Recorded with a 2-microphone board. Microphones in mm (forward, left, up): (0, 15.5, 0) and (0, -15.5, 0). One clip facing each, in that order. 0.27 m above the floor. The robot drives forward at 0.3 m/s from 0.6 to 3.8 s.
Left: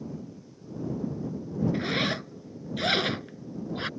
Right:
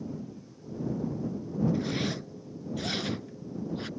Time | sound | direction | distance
1.7 | a zipper | 50° left (ahead or behind) | ?